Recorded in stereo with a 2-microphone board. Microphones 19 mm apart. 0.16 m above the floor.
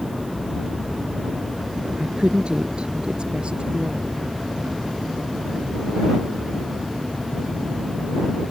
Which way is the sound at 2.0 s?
60° right (ahead or behind).